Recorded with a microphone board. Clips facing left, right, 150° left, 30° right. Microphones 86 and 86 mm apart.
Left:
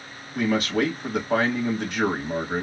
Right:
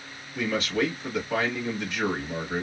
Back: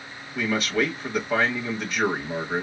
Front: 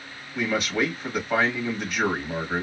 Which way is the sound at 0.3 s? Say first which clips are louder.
Left 4 dB, back 1 dB; 55° left.